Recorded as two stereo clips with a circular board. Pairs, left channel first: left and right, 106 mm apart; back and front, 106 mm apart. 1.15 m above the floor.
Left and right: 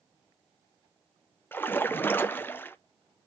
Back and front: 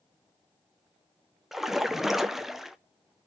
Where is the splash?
80° left, 0.7 m.